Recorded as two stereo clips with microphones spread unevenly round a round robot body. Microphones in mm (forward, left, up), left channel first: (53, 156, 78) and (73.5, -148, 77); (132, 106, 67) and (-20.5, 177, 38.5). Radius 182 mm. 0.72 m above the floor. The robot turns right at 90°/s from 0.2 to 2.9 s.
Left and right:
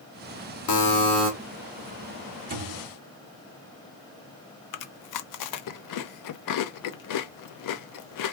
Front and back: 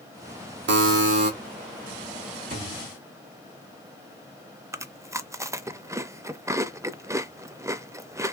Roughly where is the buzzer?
Behind left.